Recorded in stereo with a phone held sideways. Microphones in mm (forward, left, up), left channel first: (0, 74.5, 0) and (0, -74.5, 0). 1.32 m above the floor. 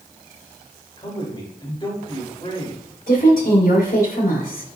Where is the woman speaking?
75° left (ahead or behind), 4.5 m.